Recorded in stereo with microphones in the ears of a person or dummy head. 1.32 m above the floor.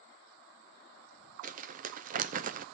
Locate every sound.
1.4 s crumpling: 35° right (ahead or behind), 0.6 m